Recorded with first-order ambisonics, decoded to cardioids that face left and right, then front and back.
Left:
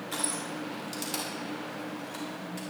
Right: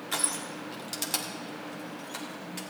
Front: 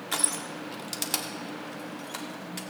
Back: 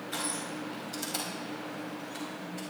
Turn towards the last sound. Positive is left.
turn(degrees=-20)